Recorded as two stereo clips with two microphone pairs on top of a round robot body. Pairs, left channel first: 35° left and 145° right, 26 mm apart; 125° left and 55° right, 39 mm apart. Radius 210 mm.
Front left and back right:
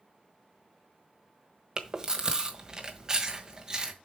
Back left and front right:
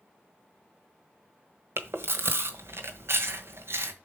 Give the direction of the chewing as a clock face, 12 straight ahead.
2 o'clock.